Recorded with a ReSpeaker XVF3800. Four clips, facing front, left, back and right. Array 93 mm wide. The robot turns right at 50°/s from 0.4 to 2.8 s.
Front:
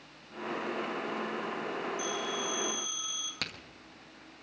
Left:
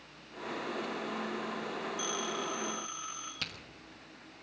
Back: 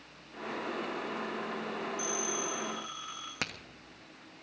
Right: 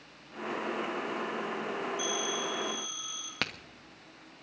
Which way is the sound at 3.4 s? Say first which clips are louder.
Right 10 dB, back 3 dB; 110° right.